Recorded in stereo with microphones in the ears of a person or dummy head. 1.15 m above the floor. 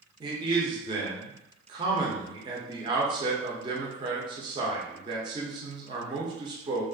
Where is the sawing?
No sawing in this recording.